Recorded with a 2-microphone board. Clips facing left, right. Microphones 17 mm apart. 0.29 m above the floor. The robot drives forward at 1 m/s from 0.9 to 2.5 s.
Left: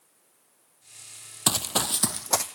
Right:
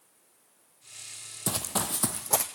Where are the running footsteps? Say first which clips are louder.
Left 6 dB; 65° left (ahead or behind), 0.6 m; by 2.5 s 35° left (ahead or behind), 1.0 m.